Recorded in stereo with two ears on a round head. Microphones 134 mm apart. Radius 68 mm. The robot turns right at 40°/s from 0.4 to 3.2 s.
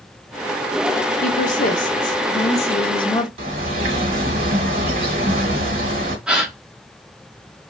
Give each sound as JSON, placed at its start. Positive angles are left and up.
{"t": 1.2, "sound": "a woman speaking", "azimuth_deg": 65, "distance_m": 0.7}
{"t": 3.4, "sound": "a bird", "side_deg": -60, "distance_m": 1.4}
{"t": 6.3, "sound": "a gasp", "side_deg": -5, "distance_m": 0.7}